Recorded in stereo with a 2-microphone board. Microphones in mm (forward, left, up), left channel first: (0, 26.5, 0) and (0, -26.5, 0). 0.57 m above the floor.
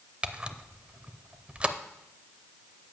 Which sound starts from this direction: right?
A camera shutter, at 0.2 s.